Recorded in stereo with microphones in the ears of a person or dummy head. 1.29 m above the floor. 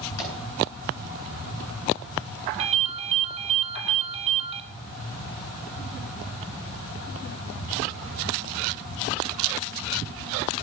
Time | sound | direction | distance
0.2 | a pop | 80° left | 8.5 m
2.6 | a ringtone | 30° right (ahead or behind) | 2.5 m